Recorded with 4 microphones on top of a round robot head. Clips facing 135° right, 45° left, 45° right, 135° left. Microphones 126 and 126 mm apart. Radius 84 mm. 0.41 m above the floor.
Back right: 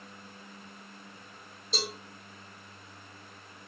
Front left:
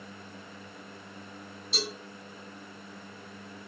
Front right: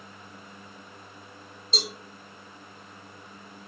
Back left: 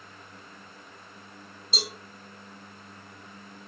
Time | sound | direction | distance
1.7 | a cowbell | 145° right | 1.5 m